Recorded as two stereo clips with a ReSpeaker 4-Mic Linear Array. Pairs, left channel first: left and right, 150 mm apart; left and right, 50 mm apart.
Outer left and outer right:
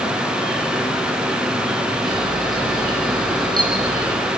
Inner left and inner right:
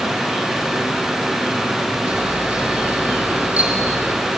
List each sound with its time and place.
2.0 s a camera shutter: 30° right (ahead or behind), 5.5 m